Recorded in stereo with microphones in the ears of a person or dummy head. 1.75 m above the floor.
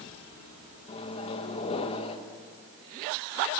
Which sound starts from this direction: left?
A microwave, at 0.9 s.